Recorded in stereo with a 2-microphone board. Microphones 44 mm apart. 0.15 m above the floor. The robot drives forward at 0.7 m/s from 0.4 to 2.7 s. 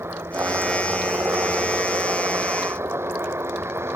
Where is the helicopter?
70° right (ahead or behind).